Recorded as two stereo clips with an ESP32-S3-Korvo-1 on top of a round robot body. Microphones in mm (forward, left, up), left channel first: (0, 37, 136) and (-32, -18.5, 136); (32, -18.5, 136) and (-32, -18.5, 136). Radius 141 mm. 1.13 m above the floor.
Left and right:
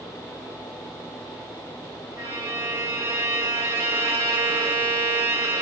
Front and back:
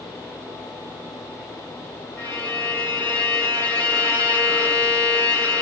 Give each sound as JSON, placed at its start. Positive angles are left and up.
{"t": 2.2, "sound": "a violin", "azimuth_deg": -60, "distance_m": 1.1}